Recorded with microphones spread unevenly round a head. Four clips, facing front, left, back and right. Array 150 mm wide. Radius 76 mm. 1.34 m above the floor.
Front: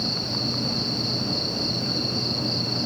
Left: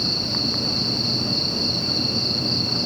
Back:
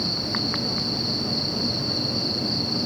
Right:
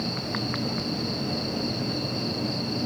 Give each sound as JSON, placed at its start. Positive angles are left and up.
{"t": 0.0, "sound": "an insect", "azimuth_deg": 105}